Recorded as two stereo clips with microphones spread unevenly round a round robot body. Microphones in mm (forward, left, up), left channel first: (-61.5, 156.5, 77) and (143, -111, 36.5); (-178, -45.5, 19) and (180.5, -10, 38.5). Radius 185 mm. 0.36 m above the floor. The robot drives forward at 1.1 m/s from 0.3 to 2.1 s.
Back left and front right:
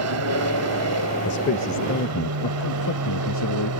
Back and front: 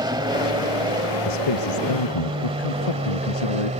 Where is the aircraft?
70° right; by 3.8 s 65° right.